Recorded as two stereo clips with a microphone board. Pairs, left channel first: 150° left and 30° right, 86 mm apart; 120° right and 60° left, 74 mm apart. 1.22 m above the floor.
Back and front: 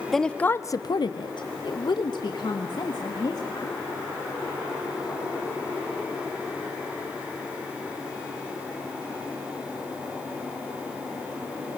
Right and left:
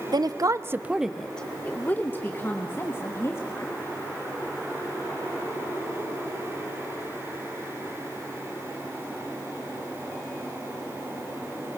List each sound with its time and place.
0.1 s a woman speaking: 65° left, 0.8 m; by 3.8 s 170° right, 3 m